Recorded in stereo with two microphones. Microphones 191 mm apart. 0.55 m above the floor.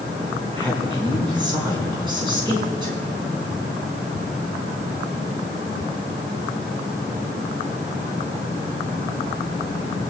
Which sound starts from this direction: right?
A man speaking, at 0.6 s.